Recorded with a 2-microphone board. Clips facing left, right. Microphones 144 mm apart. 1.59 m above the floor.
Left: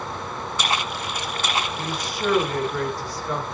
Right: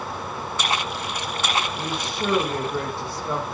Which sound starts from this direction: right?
A woman speaking, at 1.8 s.